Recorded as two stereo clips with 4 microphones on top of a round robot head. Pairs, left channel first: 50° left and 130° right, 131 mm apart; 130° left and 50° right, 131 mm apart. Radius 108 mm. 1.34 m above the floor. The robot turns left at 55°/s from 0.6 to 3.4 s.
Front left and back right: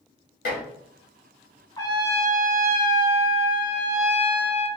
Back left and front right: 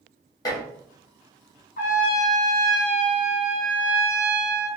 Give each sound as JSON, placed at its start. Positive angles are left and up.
{"t": 0.5, "sound": "dishes clattering", "azimuth_deg": 65, "distance_m": 1.6}
{"t": 1.8, "sound": "a trumpet", "azimuth_deg": 120, "distance_m": 1.3}